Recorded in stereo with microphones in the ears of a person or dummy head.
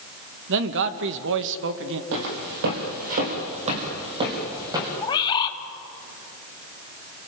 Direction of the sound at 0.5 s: 65° right (ahead or behind).